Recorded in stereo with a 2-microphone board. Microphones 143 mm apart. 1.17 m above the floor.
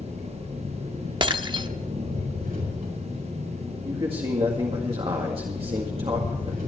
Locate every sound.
0.0 s an engine running: 80° right, 6.5 m
1.2 s breaking glass: 30° right (ahead or behind), 0.8 m
3.9 s a man speaking: 40° right (ahead or behind), 1.9 m